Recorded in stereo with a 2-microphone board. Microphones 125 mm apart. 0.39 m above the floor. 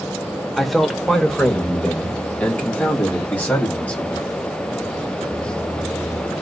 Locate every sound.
0.6 s a man speaking: centre (ahead or behind), 0.9 m; by 4.3 s 15° left (ahead or behind), 2.5 m